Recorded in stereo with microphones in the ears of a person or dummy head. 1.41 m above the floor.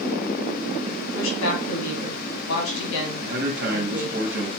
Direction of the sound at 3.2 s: 60° right (ahead or behind).